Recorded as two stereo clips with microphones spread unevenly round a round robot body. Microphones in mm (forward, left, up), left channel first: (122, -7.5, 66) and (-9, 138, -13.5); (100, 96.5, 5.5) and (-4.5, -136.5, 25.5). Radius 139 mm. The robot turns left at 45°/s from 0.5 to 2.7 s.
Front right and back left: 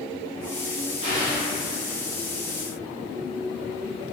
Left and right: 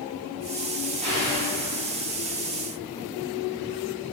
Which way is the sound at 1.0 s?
175° left.